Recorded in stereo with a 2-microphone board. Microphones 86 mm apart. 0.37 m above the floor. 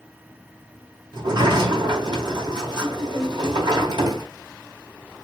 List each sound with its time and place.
1.1 s a sliding door: 60° right (ahead or behind), 3 m